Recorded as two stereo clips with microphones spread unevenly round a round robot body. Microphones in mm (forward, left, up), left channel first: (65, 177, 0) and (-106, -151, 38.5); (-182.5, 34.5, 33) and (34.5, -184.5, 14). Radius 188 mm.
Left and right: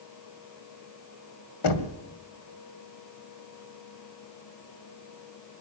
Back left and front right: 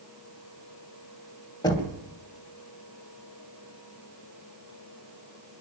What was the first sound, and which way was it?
Knocking, 55° left.